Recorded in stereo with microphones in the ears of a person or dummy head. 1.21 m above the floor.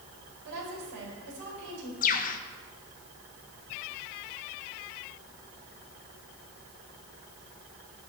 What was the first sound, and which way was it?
A woman speaking, 90° right.